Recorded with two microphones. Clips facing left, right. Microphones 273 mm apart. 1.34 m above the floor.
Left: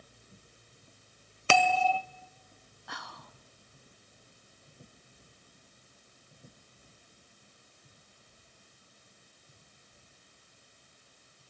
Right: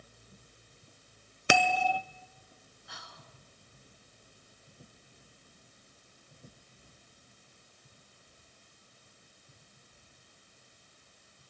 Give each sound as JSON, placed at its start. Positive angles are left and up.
{"t": 1.5, "sound": "a bell", "side_deg": -15, "distance_m": 0.8}
{"t": 2.9, "sound": "whispering", "side_deg": 70, "distance_m": 0.8}